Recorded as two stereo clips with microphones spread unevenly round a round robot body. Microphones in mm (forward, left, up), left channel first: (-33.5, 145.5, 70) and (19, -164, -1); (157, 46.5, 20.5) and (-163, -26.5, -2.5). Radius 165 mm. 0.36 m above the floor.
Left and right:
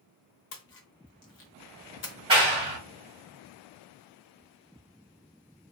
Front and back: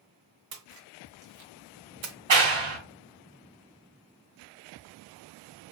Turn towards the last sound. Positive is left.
turn(degrees=-145)